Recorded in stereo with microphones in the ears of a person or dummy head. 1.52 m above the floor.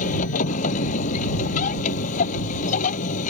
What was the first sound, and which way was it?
A machine running, 45° left (ahead or behind).